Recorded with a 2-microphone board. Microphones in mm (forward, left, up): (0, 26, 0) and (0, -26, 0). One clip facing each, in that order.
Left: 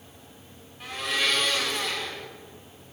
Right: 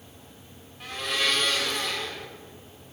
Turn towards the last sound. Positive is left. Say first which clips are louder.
# even
turn(degrees=0)  # may be behind; listen again after turning